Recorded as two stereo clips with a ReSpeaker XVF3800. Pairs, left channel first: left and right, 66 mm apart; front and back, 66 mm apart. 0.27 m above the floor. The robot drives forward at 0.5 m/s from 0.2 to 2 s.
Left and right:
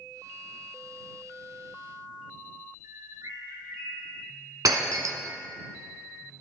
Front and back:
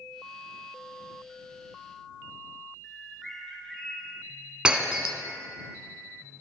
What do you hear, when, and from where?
2.8 s a bird: 85° right, 3 m
4.7 s breaking glass: 105° right, 1.1 m